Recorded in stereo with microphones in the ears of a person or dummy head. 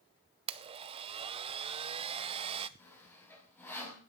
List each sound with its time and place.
0.5 s a blender: 30° right (ahead or behind), 0.7 m
2.8 s sawing: 10° left (ahead or behind), 4.5 m